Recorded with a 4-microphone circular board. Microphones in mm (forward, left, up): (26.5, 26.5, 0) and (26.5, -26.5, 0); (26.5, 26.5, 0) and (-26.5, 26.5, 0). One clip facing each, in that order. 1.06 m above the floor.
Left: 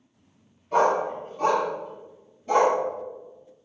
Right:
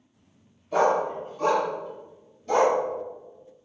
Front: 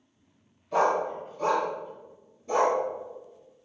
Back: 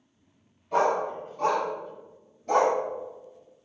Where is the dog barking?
135° left, 3 m; by 2.8 s 165° left, 2.0 m.